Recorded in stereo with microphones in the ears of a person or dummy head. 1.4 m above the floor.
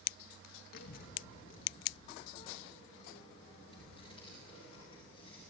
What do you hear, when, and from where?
0.7 s a child speaking: 60° left (ahead or behind), 1.3 m; by 5.4 s 35° left (ahead or behind), 7 m